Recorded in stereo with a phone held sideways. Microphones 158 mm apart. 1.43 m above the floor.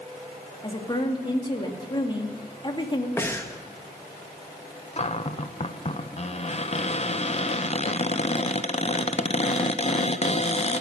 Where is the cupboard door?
40° left (ahead or behind), 0.8 m.